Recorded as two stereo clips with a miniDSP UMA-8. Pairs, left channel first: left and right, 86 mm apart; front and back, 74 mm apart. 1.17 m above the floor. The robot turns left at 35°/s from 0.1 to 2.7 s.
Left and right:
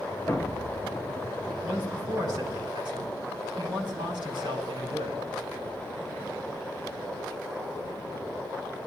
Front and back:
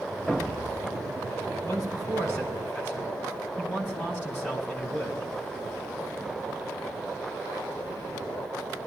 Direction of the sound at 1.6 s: 25° right.